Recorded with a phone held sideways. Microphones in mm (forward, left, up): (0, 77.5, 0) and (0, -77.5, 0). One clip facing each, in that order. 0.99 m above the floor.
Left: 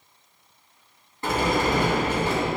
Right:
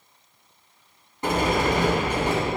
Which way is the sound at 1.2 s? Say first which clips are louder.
Right 1 dB; 20° right (ahead or behind).